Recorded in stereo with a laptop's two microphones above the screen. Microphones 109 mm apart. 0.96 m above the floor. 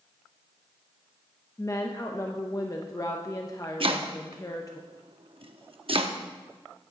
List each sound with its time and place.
1.6 s a woman speaking: 35° left (ahead or behind), 0.8 m
3.8 s chopping: 60° right (ahead or behind), 0.9 m